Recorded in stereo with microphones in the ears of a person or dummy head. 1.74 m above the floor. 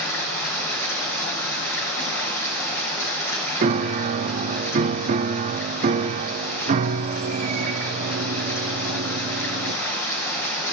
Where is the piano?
45° right (ahead or behind), 0.6 m.